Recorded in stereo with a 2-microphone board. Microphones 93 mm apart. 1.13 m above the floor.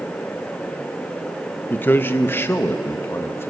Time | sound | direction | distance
1.7 | a man speaking | 20° left (ahead or behind) | 1.0 m